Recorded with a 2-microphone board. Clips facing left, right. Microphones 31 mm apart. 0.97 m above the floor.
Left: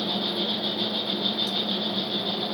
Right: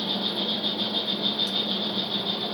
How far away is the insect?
About 2.0 m.